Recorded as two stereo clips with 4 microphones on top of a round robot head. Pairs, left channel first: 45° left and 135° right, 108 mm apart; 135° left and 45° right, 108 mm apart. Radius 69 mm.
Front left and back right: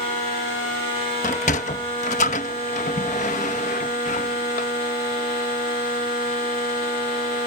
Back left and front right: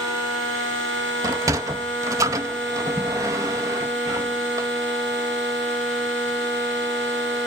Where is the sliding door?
20° left.